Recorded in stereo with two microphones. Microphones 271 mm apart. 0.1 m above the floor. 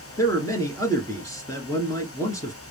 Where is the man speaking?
10° left (ahead or behind), 1.1 m.